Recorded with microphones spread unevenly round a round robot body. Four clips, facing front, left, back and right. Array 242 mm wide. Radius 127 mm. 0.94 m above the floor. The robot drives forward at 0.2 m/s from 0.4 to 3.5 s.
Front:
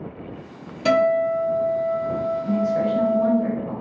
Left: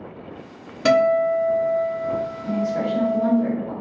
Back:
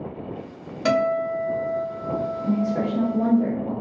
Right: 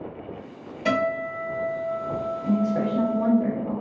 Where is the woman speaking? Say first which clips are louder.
Right 1 dB, front 2 dB; 165° right, 1.1 m; by 3.7 s 170° right, 1.3 m.